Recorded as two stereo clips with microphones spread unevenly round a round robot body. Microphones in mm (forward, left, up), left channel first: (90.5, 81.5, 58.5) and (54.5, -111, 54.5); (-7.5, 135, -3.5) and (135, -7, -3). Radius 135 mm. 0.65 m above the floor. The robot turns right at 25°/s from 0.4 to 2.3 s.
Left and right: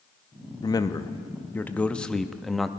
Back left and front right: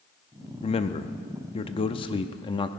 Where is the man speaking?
130° left, 0.5 m; by 2.7 s 170° left, 0.5 m.